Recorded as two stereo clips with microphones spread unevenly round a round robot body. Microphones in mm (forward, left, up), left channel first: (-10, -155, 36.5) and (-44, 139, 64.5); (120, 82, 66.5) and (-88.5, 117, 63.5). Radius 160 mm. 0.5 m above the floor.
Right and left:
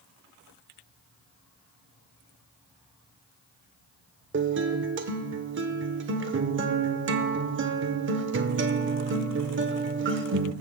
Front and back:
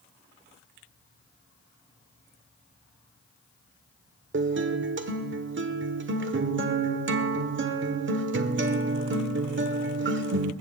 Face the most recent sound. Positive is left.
turn(degrees=150)